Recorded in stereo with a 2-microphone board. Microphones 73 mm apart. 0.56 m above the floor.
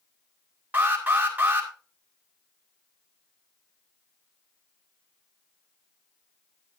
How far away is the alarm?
About 2 m.